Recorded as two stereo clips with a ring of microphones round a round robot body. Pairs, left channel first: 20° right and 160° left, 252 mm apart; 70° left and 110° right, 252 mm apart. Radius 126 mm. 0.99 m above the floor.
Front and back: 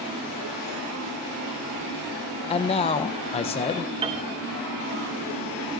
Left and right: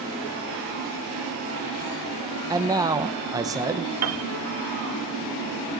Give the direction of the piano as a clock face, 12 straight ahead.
4 o'clock.